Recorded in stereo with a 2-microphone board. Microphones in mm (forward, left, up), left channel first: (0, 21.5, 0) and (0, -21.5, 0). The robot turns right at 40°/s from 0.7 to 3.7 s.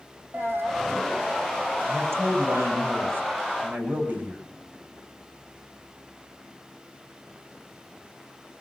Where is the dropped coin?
65° right (ahead or behind), 2.5 m; by 1.0 s 50° right (ahead or behind), 2.5 m.